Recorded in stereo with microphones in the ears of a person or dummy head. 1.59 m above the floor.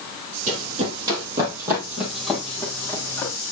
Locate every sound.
0.5 s running footsteps: 30° right (ahead or behind), 3 m; by 3.3 s 15° left (ahead or behind), 4.5 m